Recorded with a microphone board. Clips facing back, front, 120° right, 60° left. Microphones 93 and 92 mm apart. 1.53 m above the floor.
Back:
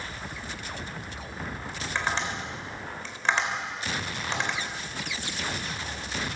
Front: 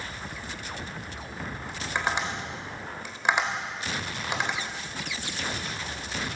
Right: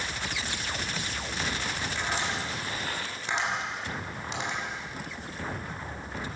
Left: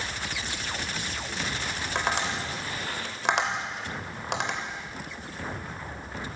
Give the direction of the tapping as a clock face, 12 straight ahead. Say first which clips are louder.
Front 1 dB, left 5 dB; 9 o'clock.